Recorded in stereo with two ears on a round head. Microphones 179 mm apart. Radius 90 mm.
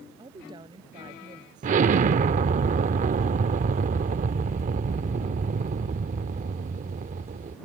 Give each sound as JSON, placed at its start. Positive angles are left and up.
{"t": 0.2, "sound": "a woman speaking", "side_deg": -20}
{"t": 1.6, "sound": "an explosion", "side_deg": -40}